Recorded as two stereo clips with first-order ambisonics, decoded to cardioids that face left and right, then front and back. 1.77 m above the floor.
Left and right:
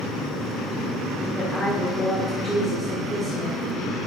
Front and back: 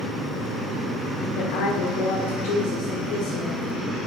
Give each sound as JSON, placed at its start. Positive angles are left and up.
{"t": 1.4, "sound": "a woman speaking", "azimuth_deg": 5, "distance_m": 1.3}